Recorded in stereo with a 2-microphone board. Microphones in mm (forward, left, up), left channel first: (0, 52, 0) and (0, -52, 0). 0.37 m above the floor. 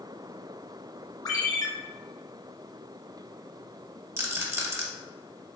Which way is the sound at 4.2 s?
25° right (ahead or behind).